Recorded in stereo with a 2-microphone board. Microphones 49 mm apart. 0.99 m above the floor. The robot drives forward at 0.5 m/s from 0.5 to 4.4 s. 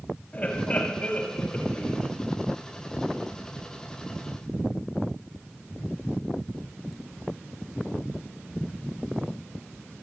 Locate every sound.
0.3 s laughter: 30° left (ahead or behind), 2.5 m; by 2.1 s 20° left (ahead or behind), 3 m